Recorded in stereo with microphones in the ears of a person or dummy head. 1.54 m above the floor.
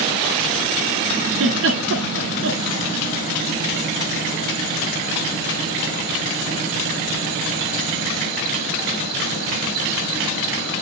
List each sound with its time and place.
1.3 s a giggle: 65° right (ahead or behind), 2 m